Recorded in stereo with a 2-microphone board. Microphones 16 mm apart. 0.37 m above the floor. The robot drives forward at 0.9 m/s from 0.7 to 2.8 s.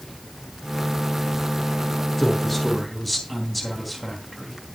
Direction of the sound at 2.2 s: 10° left (ahead or behind).